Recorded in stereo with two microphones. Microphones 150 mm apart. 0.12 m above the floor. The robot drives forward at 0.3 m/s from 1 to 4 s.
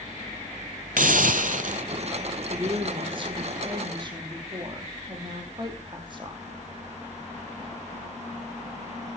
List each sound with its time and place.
1.0 s a hiss: 75° right (ahead or behind), 0.6 m; by 1.8 s 65° right (ahead or behind), 0.6 m
2.5 s a woman speaking: 35° right (ahead or behind), 4 m